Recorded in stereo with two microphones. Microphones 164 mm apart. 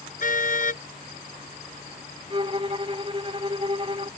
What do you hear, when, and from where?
0.2 s a car horn: 50° left (ahead or behind)
2.3 s a violin: 35° right (ahead or behind)